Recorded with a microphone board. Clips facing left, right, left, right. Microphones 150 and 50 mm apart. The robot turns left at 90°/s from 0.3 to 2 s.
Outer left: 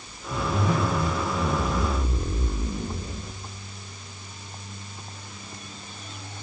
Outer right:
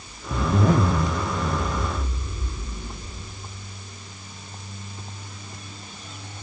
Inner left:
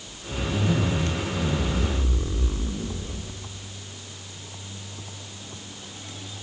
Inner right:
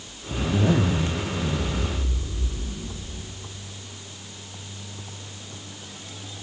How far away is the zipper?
About 0.7 m.